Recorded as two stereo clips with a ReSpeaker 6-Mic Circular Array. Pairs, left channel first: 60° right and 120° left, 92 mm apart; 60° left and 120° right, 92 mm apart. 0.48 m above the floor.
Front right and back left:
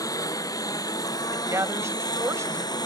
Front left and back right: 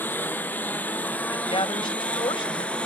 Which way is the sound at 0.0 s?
10° right.